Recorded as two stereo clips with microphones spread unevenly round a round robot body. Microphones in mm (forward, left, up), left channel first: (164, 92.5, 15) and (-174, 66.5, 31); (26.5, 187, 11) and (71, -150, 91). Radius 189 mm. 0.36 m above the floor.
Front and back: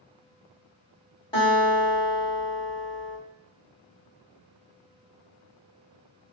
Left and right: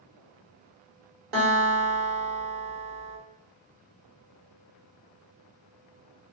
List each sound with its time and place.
1.3 s a guitar: 70° right, 1.7 m